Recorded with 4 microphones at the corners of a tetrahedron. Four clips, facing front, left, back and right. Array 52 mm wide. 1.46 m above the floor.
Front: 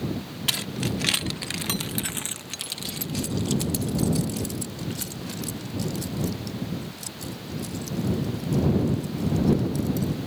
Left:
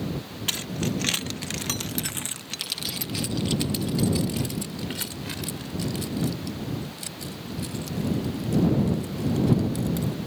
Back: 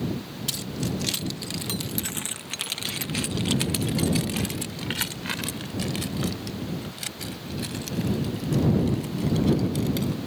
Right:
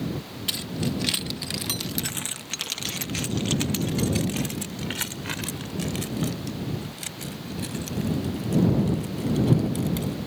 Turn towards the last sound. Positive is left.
turn(degrees=-155)